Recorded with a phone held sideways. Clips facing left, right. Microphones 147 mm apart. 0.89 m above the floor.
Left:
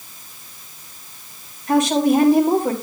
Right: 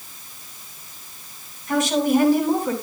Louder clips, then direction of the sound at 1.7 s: Left 3 dB; 60° left (ahead or behind).